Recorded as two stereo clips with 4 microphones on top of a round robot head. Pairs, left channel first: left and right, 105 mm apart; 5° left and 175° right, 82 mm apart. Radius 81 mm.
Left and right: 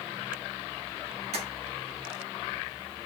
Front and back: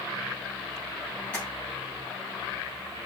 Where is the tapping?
75° right, 3 m.